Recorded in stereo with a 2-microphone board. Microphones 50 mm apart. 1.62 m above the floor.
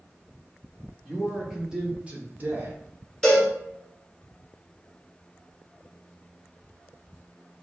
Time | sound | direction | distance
1.1 | a man speaking | centre (ahead or behind) | 1.4 m
3.2 | a cowbell | 15° left (ahead or behind) | 2.0 m